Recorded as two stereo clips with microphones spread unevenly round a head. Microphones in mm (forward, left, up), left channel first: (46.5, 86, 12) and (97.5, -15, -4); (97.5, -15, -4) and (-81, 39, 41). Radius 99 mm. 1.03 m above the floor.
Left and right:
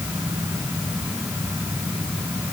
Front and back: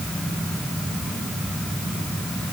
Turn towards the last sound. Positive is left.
No sound to turn to.